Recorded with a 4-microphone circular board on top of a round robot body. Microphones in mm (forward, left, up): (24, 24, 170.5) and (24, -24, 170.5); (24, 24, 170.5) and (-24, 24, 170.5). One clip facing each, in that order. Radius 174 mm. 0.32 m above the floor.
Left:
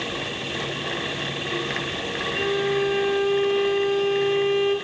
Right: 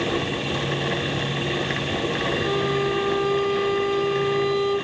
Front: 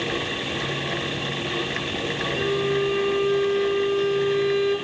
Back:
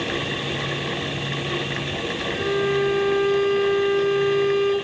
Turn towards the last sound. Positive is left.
turn(degrees=145)